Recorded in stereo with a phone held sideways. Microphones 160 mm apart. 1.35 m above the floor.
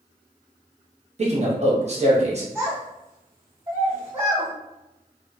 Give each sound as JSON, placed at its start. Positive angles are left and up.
{"t": 1.2, "sound": "a man speaking", "side_deg": -45, "distance_m": 1.0}
{"t": 2.5, "sound": "a child speaking", "side_deg": -40, "distance_m": 1.8}